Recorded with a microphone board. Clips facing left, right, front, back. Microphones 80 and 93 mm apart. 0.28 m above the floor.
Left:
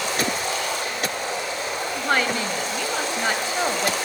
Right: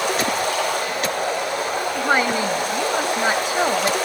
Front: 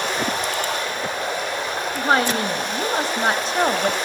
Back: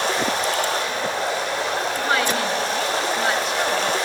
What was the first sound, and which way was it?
Running water, 120° right.